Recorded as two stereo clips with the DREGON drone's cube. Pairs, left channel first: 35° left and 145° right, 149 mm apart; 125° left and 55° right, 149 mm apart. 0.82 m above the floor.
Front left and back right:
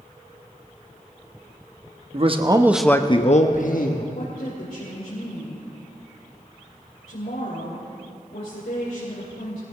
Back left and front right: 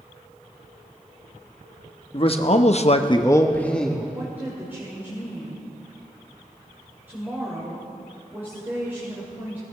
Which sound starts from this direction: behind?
A man speaking, at 2.1 s.